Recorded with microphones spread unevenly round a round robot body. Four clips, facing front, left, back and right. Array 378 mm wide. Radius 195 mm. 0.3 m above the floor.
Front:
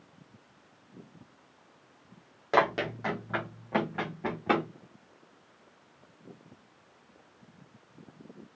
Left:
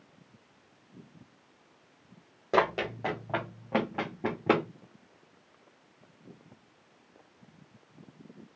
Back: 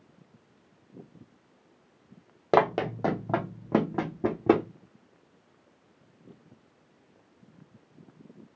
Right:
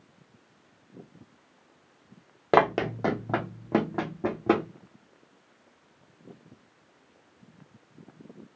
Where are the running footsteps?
100° right, 0.8 m; by 4.7 s straight behind, 1.2 m.